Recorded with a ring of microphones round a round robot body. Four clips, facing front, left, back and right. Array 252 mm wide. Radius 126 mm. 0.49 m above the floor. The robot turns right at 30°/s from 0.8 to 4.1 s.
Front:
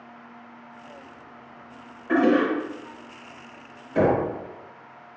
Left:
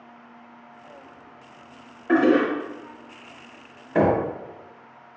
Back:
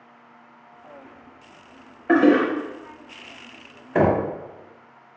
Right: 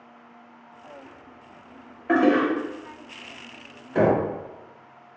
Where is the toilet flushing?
165° right, 1.1 m; by 2.5 s 155° right, 1.1 m.